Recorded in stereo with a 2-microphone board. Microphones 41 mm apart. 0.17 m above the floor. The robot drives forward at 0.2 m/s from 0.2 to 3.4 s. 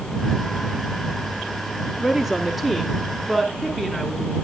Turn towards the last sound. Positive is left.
turn(degrees=-5)  # may be behind; listen again after turning